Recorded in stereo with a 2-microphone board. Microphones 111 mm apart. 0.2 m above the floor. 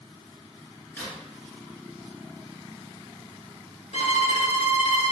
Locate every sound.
0.9 s a crack: 15° left (ahead or behind), 1.7 m
3.9 s a violin: 65° left (ahead or behind), 0.6 m